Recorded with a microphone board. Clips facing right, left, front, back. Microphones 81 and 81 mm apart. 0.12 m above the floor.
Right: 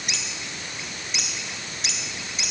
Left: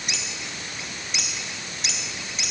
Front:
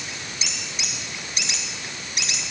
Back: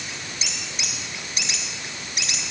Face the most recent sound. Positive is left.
No sound to turn to.